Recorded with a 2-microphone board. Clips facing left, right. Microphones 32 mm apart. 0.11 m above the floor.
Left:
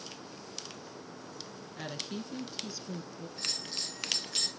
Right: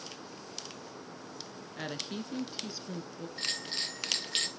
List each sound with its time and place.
1.8 s a woman speaking: 20° right (ahead or behind), 1.1 m
3.4 s a bell: 50° right (ahead or behind), 1.4 m